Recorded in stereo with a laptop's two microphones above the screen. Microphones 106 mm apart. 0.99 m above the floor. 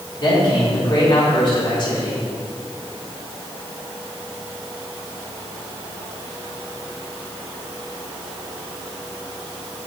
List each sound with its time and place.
0.2 s a man speaking: 50° left (ahead or behind), 3.5 m